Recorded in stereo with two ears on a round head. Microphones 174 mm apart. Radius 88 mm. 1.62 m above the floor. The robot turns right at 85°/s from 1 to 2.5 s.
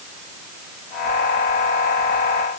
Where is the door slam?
I don't hear a door slam.